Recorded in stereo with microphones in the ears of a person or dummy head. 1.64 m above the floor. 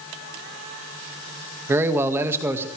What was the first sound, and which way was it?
A man speaking, 10° right (ahead or behind).